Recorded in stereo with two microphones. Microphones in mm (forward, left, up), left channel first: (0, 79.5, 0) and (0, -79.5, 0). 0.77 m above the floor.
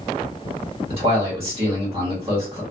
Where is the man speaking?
35° right (ahead or behind), 1.5 m.